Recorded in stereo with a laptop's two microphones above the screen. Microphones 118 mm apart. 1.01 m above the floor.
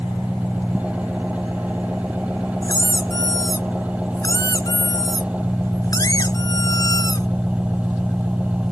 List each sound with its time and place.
0.0 s an engine running: 10° right (ahead or behind)
2.6 s a squeak: 35° left (ahead or behind)